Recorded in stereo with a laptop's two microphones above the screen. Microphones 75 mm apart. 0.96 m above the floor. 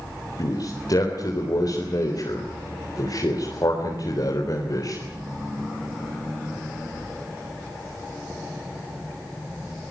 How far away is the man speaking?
About 4 m.